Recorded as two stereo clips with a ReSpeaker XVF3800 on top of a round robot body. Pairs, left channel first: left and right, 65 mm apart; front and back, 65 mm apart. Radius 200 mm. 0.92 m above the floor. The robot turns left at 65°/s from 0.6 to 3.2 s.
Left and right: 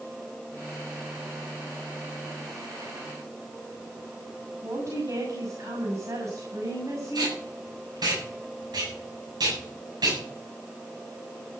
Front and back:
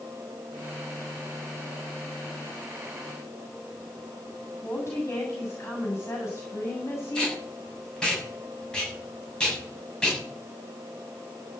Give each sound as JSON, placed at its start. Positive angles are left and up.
{"t": 4.6, "sound": "a woman speaking", "azimuth_deg": -55, "distance_m": 7.0}
{"t": 7.2, "sound": "tape being pulled", "azimuth_deg": -80, "distance_m": 8.0}